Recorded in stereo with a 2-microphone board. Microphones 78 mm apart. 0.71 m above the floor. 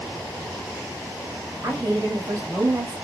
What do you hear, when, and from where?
1.6 s a woman speaking: 40° right (ahead or behind), 1.4 m